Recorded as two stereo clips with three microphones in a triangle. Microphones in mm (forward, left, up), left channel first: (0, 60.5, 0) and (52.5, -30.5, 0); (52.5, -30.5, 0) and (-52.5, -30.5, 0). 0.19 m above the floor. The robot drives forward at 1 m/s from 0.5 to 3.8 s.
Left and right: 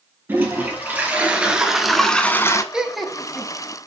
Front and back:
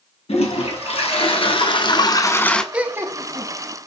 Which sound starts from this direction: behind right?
Laughter, at 2.7 s.